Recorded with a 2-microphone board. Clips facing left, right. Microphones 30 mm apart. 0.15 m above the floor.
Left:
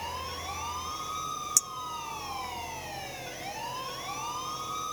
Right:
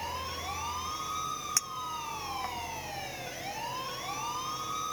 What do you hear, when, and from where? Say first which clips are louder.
1.6 s a clink: left 1 dB; 30° right (ahead or behind)